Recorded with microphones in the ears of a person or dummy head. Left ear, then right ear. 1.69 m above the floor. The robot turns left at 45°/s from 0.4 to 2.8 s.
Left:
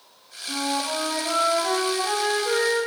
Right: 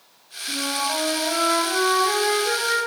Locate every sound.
0.5 s a flute: 90° left, 1.2 m; by 2.9 s 15° right, 1.2 m